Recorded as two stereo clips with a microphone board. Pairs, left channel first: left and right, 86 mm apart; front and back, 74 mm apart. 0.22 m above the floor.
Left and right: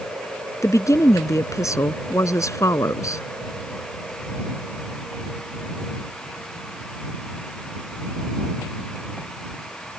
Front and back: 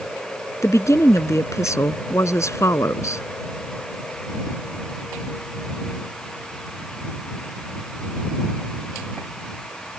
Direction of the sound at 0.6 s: 40° left.